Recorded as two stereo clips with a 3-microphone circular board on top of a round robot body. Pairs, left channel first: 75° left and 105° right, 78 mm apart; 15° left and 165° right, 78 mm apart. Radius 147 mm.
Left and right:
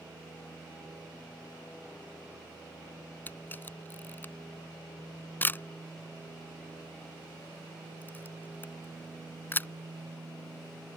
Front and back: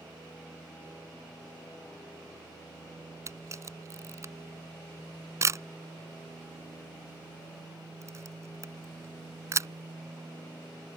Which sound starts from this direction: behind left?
A camera shutter, at 3.3 s.